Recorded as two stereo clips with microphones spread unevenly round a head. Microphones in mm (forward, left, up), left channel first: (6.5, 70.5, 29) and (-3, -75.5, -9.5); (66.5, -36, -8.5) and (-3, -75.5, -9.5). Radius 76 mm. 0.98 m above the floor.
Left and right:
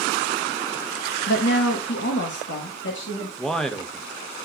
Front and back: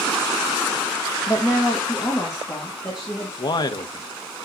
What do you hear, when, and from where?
1.3 s a woman speaking: 105° left, 0.8 m; by 3.3 s 100° left, 2 m
3.4 s a man speaking: 5° right, 1.0 m